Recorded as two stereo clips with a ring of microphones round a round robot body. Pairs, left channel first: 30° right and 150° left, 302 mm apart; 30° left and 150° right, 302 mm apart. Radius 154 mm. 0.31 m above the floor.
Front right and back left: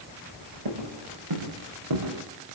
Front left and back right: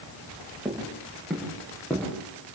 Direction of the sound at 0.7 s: 125° left.